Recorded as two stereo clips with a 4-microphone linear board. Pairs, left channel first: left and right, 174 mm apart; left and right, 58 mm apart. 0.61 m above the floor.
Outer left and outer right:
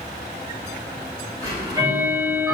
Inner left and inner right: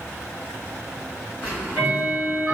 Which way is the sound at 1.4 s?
20° right (ahead or behind).